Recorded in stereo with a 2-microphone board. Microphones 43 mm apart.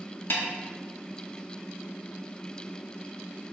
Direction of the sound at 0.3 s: 50° left (ahead or behind).